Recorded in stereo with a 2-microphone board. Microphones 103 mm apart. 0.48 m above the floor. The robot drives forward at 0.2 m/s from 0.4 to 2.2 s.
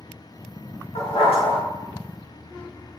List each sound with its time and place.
0.9 s a dog barking: 85° left, 0.8 m; by 1.6 s 75° left (ahead or behind), 0.8 m